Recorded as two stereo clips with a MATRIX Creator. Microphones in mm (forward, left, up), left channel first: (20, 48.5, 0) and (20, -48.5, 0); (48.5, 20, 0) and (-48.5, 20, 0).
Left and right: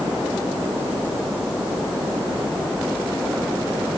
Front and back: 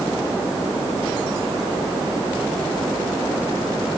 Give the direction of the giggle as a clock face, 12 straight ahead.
No giggle in this recording.